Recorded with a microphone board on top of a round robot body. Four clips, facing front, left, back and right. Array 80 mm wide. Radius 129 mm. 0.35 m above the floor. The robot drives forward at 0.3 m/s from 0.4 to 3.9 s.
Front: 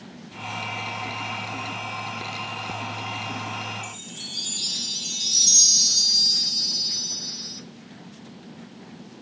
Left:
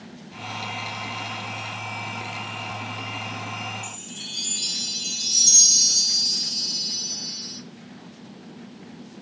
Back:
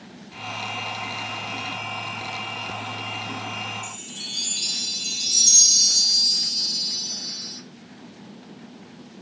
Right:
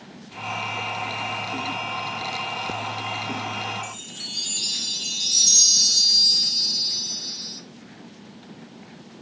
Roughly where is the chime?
Behind right.